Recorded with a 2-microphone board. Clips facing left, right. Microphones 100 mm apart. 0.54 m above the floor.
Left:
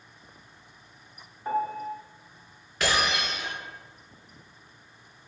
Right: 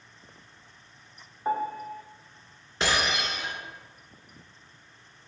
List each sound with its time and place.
1.4 s a piano: 20° right (ahead or behind), 0.8 m
2.8 s breaking glass: 25° right (ahead or behind), 2 m